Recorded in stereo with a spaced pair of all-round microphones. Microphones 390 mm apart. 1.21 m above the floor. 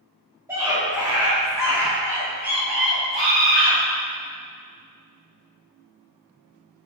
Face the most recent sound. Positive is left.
turn(degrees=35)  # may be behind; listen again after turning